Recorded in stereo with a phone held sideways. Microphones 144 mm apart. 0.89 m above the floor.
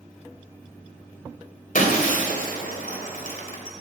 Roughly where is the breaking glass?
Left.